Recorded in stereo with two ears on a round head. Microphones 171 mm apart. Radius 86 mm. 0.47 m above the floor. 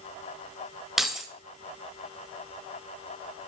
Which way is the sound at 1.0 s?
Centre (ahead or behind).